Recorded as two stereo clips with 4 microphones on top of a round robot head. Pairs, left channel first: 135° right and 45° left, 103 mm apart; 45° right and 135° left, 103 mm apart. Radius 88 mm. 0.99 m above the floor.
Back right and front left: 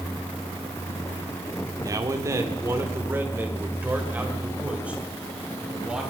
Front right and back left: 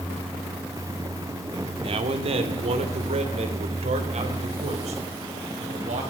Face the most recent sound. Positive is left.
turn(degrees=125)